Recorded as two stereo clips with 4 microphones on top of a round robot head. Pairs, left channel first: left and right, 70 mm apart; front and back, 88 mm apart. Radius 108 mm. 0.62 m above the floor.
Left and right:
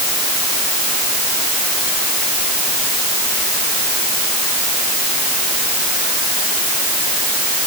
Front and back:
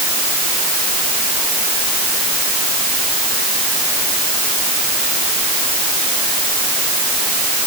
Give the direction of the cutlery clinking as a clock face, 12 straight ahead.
No cutlery clinking in this recording.